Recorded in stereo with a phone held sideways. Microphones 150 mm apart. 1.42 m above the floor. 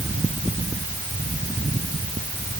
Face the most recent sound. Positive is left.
No sound to turn to.